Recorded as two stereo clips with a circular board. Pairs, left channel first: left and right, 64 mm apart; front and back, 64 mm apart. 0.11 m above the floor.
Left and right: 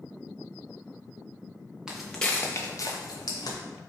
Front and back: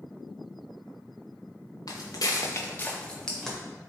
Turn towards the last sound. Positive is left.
turn(degrees=90)